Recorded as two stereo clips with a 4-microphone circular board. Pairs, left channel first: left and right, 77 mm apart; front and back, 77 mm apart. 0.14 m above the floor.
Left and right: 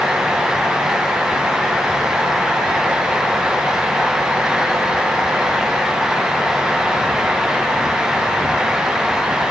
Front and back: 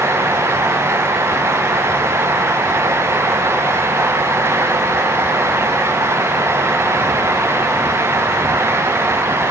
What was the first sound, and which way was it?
Only background noise.